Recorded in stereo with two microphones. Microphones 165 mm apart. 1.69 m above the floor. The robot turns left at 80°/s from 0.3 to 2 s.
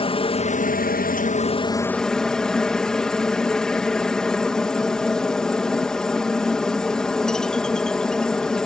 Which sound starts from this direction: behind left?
A helicopter, at 0.0 s.